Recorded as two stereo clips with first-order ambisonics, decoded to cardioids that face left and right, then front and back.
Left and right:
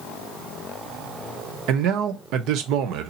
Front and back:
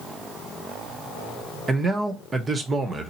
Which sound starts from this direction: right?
A man speaking, at 1.7 s.